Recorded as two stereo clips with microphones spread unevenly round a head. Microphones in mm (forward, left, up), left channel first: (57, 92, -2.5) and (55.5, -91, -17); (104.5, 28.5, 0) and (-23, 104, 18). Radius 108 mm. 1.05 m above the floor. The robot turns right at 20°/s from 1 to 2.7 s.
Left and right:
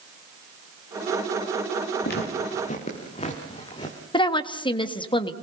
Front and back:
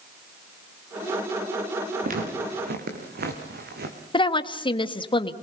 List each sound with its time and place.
2.0 s footsteps: 130° left, 4 m; by 4.0 s 160° left, 3.5 m
4.1 s a woman speaking: 25° left, 1.6 m